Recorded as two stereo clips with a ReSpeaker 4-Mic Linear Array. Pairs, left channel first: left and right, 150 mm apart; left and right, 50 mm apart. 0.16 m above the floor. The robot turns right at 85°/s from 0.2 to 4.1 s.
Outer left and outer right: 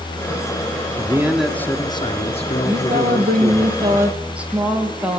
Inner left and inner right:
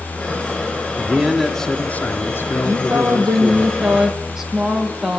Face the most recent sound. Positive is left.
turn(degrees=-10)